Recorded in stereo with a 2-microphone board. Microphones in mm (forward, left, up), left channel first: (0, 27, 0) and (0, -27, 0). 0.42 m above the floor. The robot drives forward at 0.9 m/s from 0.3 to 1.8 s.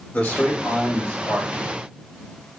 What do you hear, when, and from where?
0.1 s a man speaking: 20° left (ahead or behind), 1.0 m; by 1.6 s 15° left (ahead or behind), 1.2 m